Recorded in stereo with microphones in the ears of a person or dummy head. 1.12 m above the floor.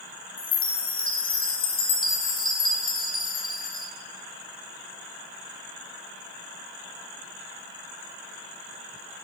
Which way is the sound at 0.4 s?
30° left (ahead or behind).